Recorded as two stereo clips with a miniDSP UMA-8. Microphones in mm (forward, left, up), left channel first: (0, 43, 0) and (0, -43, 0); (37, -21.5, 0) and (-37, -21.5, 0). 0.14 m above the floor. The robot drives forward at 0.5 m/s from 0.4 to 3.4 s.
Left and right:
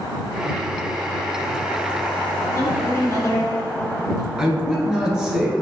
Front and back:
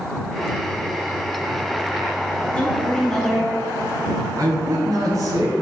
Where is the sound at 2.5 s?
65° left, 1.7 m; by 4.3 s 90° left, 1.7 m.